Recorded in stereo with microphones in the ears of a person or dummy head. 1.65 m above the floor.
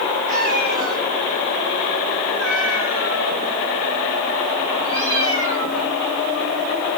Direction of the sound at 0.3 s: 40° right (ahead or behind).